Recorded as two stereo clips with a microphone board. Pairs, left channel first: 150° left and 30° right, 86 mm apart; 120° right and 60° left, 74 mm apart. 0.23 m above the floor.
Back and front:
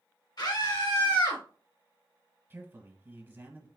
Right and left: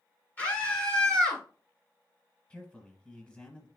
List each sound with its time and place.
0.4 s a scream: 175° left, 2.5 m; by 1.4 s 160° left, 2.0 m
2.5 s a man speaking: 60° right, 1.1 m